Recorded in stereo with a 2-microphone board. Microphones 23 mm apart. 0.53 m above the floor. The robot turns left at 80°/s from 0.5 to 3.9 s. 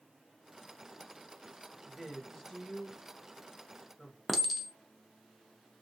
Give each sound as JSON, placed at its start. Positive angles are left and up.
{"t": 1.8, "sound": "a woman speaking", "side_deg": -40, "distance_m": 1.5}
{"t": 4.3, "sound": "a clink", "side_deg": 5, "distance_m": 0.5}